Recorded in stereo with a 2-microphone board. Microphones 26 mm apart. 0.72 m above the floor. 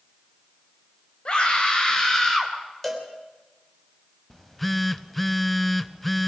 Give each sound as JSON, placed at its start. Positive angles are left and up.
{"t": 1.2, "sound": "a scream", "side_deg": 40, "distance_m": 4.0}
{"t": 2.8, "sound": "a cowbell", "side_deg": 5, "distance_m": 3.0}
{"t": 4.3, "sound": "a phone buzzing", "side_deg": 5, "distance_m": 0.6}